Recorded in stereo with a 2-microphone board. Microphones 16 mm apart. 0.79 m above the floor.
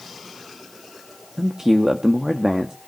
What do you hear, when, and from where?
1.4 s a man speaking: 30° right (ahead or behind), 1.2 m